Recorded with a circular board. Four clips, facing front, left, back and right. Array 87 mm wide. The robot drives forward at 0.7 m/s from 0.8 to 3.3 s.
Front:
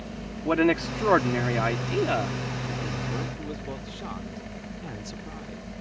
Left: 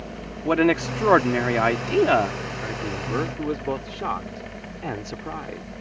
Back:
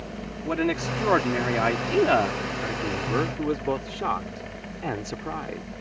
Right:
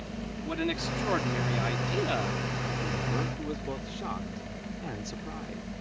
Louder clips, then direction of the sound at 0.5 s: Left 13 dB, front 3 dB; 75° left.